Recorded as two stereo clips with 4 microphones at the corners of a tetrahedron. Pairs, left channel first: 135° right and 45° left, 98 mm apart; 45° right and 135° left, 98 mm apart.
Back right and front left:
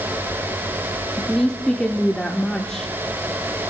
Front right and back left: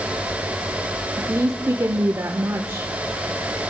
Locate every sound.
1.2 s a woman speaking: 145° left, 0.8 m